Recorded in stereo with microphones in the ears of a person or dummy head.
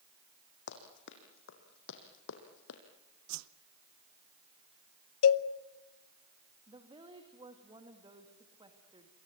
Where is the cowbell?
80° left, 0.9 m.